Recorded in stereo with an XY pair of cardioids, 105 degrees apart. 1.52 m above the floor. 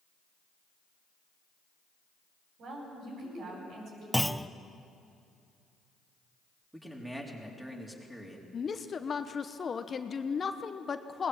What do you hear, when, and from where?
2.6 s a woman speaking: 65° right, 9.5 m
4.1 s a clunk: straight ahead, 0.6 m
6.7 s a man speaking: 5° right, 4 m
8.5 s a woman speaking: 35° left, 1.0 m